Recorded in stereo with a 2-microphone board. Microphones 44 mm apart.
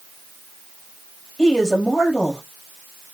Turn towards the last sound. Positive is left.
turn(degrees=20)  # may be behind; listen again after turning